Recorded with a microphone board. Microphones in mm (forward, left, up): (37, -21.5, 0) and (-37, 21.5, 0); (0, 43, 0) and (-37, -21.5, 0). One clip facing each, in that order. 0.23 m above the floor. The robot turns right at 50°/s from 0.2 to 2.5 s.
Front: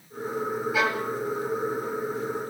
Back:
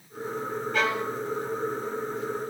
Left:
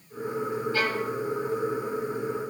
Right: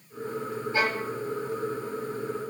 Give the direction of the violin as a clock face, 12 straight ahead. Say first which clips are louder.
Even, right 3 dB; 3 o'clock.